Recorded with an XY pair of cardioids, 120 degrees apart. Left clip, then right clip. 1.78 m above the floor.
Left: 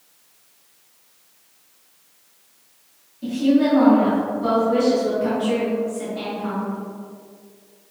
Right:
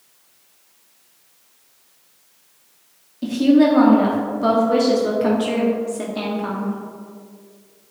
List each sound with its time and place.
3.2 s a woman speaking: 50° right, 0.9 m